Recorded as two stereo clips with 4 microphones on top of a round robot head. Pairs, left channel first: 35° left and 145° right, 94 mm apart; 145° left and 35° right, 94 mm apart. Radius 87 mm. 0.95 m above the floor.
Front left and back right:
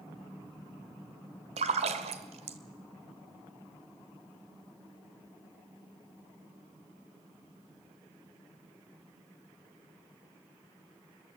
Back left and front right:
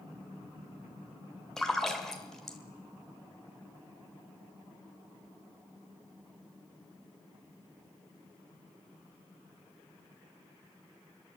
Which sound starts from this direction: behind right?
A splash, at 1.6 s.